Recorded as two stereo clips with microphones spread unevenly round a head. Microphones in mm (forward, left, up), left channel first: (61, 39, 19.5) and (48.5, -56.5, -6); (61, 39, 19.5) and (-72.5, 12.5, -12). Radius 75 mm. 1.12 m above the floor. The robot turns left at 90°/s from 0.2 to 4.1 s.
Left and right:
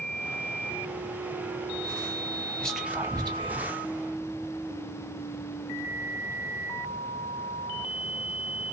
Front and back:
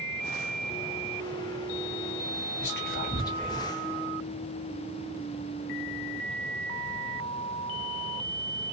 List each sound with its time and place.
2.6 s whispering: straight ahead, 1.4 m; by 3.7 s 100° right, 1.4 m